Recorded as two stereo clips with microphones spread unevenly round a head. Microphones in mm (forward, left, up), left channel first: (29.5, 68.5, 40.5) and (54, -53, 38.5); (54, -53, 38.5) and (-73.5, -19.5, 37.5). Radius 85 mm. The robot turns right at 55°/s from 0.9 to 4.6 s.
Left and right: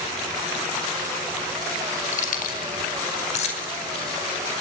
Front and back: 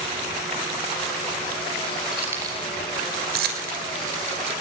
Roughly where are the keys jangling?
Left.